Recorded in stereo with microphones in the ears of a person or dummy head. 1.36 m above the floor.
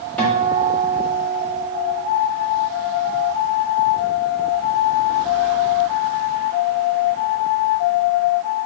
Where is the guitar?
10° left (ahead or behind), 1.6 m.